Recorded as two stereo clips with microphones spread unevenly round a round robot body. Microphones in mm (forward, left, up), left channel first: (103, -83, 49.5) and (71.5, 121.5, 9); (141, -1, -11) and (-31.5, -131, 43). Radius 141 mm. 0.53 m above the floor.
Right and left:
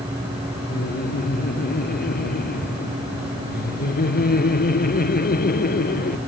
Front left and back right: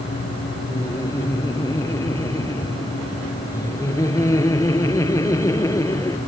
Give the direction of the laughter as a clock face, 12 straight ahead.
1 o'clock.